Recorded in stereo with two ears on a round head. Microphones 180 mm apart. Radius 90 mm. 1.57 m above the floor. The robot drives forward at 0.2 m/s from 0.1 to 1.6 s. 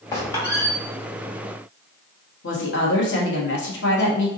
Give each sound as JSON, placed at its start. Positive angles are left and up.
{"t": 0.1, "sound": "a squeak", "side_deg": 15, "distance_m": 1.3}
{"t": 2.4, "sound": "a woman speaking", "side_deg": 60, "distance_m": 1.1}